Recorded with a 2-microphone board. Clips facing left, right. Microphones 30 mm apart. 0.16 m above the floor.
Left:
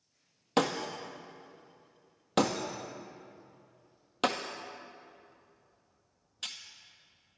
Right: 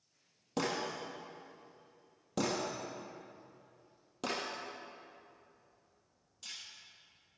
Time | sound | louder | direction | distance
0.6 | breaking glass | left 6 dB | 60° left (ahead or behind) | 1.7 m